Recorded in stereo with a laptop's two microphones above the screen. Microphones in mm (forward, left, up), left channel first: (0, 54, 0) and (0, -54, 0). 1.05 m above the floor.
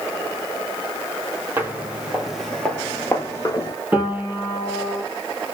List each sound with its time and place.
1.6 s footsteps: 20° right (ahead or behind), 1.4 m; by 3.8 s 40° left (ahead or behind), 1.3 m
3.9 s a piano: 20° right (ahead or behind), 1.8 m